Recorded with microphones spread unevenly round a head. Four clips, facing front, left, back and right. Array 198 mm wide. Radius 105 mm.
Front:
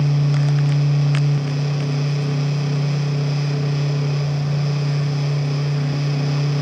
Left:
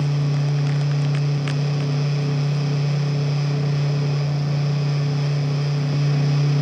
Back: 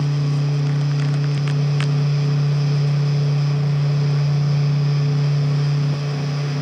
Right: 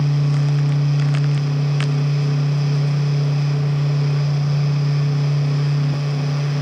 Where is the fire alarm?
No fire alarm in this recording.